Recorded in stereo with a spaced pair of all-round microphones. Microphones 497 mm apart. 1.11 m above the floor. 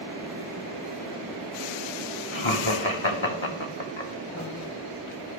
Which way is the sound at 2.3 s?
65° left (ahead or behind).